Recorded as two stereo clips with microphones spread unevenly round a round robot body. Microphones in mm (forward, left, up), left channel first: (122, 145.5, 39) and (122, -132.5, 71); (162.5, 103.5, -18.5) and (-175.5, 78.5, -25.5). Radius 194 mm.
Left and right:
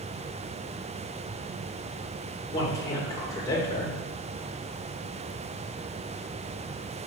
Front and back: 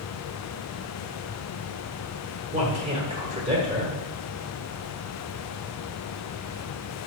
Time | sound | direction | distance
2.5 | a man speaking | 140° left | 1.2 m